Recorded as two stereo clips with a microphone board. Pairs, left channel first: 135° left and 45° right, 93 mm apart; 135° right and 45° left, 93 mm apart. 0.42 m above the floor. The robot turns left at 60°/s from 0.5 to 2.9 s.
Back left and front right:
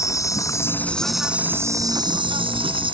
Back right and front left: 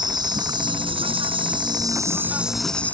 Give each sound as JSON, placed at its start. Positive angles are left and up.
{"t": 0.0, "sound": "an insect", "azimuth_deg": 80}